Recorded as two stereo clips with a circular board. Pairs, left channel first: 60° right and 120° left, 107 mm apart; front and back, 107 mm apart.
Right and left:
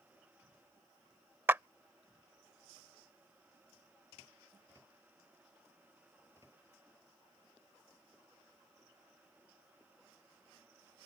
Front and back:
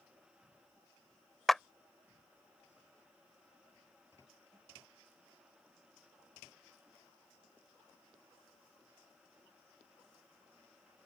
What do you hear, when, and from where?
1.5 s a clap: 85° left